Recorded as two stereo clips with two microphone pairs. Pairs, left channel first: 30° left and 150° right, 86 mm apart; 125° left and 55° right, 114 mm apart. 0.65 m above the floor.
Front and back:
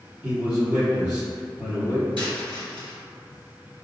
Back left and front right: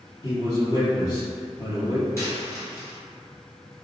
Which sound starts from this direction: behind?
A dropped coin, at 2.2 s.